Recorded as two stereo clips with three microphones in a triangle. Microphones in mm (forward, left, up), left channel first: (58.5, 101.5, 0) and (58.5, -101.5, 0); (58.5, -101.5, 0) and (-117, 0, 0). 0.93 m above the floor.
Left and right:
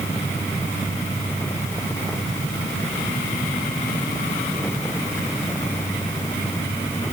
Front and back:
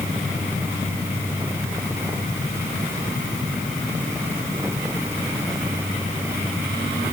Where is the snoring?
No snoring in this recording.